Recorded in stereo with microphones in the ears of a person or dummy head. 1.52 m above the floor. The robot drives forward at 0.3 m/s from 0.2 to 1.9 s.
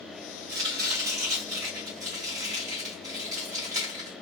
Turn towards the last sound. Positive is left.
turn(degrees=-45)  # may be behind; listen again after turning